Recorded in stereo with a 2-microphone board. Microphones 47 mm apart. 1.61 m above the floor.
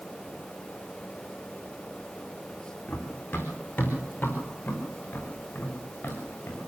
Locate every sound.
2.9 s running footsteps: 25° left (ahead or behind), 4.5 m; by 6.6 s 40° left (ahead or behind), 7.5 m